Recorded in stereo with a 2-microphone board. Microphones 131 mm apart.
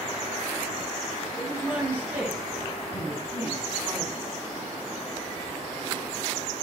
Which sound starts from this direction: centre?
A woman speaking, at 1.4 s.